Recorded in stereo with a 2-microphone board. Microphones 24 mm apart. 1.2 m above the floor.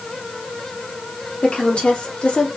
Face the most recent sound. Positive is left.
turn(degrees=50)  # may be behind; listen again after turning